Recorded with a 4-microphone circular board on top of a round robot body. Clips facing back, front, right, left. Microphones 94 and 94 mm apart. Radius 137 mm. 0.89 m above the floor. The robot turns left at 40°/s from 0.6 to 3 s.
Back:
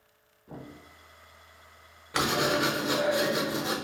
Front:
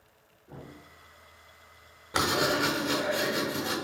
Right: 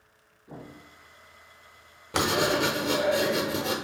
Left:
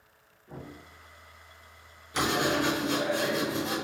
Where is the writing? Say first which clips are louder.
Even, right 2 dB; 70° right, 0.8 m; by 3.8 s 105° right, 0.8 m.